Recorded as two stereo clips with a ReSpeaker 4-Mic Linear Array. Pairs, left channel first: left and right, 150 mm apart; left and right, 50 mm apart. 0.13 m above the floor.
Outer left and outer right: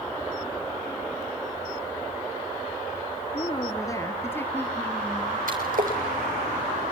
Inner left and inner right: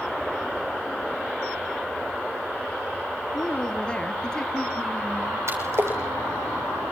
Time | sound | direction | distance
3.3 | a woman speaking | 30° left (ahead or behind) | 2.5 m
5.5 | a splash | 65° right (ahead or behind) | 7.5 m